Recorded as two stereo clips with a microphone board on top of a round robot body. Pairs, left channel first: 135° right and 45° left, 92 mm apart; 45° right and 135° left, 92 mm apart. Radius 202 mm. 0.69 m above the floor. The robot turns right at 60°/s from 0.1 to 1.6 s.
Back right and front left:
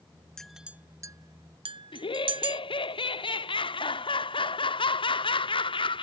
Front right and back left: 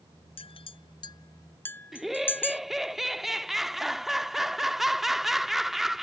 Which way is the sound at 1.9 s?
135° right.